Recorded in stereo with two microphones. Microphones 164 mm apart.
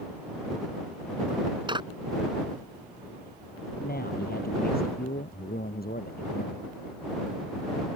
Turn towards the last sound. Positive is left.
turn(degrees=65)  # may be behind; listen again after turning